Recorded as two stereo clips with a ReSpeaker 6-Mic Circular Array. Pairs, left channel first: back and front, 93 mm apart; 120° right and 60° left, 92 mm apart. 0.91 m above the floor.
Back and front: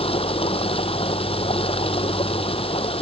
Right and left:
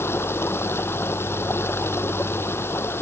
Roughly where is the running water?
Behind.